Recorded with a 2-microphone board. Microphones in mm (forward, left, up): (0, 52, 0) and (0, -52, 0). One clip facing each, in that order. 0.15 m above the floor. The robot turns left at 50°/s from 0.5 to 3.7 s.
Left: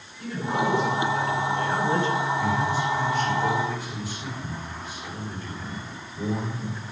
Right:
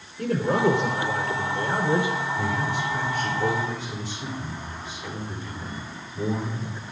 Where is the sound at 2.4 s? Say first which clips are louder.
Left 2 dB; 85° right, 8.5 m; by 6.8 s 155° right, 8.5 m.